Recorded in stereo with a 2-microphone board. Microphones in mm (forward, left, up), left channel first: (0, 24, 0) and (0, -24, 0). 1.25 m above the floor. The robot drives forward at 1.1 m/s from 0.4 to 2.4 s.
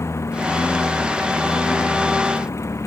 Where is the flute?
I don't hear a flute.